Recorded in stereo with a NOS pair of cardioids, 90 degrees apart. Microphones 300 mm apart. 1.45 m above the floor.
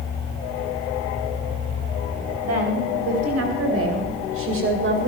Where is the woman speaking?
60° right, 8.5 m; by 5.1 s 40° right, 7.5 m.